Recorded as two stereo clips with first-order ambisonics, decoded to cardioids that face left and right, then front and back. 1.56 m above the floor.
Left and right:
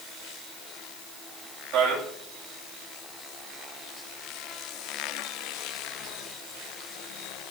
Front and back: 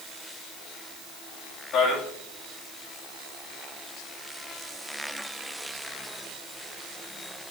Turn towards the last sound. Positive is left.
turn(degrees=-45)